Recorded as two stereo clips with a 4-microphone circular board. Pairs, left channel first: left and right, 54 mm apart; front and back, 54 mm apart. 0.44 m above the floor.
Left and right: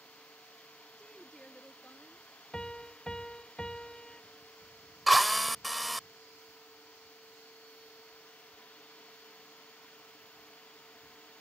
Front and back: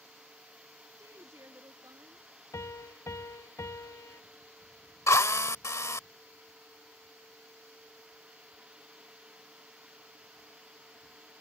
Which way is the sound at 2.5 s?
20° left.